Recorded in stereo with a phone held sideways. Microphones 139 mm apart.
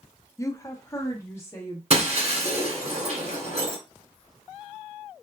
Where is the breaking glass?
50° right (ahead or behind), 1.7 m.